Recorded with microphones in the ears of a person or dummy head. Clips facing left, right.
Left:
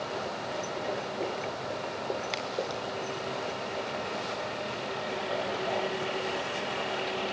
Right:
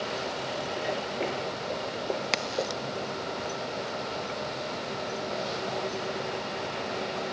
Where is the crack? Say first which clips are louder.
Right 2 dB; 75° right (ahead or behind), 1.5 m.